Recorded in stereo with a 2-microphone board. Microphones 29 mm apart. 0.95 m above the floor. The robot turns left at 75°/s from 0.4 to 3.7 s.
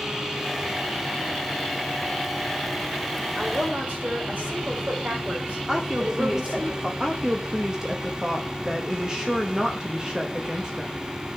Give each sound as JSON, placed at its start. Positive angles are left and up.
{"t": 3.4, "sound": "a woman speaking", "side_deg": -45, "distance_m": 4.0}
{"t": 5.7, "sound": "a woman speaking", "side_deg": -25, "distance_m": 2.5}
{"t": 7.0, "sound": "a woman speaking", "side_deg": -25, "distance_m": 1.4}